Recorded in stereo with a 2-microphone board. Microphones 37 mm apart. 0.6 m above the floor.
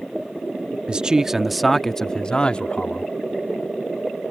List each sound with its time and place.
0.9 s a man speaking: 30° right (ahead or behind); by 3.1 s 40° left (ahead or behind)